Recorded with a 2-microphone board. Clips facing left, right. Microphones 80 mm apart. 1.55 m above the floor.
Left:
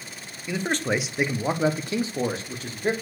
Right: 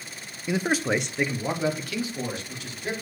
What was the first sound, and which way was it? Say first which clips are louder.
A man speaking: right 1 dB; 20° right (ahead or behind).